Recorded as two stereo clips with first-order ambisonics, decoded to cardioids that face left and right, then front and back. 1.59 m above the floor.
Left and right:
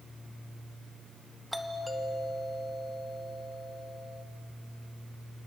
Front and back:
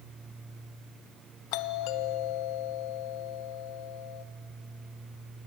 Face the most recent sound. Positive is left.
turn(degrees=0)